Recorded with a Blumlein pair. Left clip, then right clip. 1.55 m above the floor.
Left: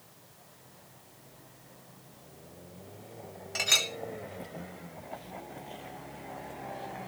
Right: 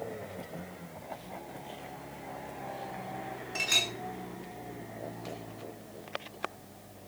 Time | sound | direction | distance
3.5 | a clink | 60° left | 2 m